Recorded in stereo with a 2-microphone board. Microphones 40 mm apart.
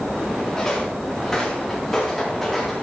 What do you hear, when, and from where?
0.6 s footsteps: 15° left (ahead or behind), 8.5 m; by 2.8 s 5° left (ahead or behind), 7 m